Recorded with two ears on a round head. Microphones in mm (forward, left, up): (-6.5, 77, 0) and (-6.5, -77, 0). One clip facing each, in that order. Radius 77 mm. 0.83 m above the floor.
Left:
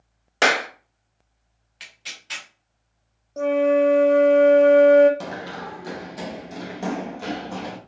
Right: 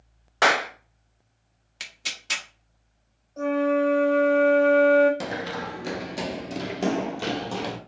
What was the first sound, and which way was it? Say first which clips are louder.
A clap: left 1 dB; 30° left (ahead or behind).